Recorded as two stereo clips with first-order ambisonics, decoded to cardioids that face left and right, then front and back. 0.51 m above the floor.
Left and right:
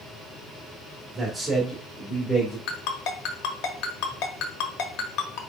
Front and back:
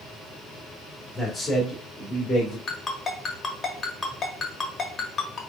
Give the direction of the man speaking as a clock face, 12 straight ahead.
4 o'clock.